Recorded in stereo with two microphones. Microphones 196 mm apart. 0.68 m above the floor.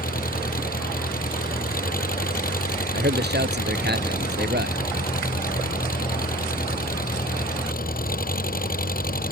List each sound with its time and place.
0.0 s an engine running: 45° left (ahead or behind)
2.9 s a man speaking: 60° right (ahead or behind)